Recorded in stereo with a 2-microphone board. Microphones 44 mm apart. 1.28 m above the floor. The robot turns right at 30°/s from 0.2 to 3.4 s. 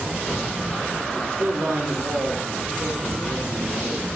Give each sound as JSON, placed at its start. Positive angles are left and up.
{"t": 1.1, "sound": "a man speaking", "azimuth_deg": -125, "distance_m": 1.0}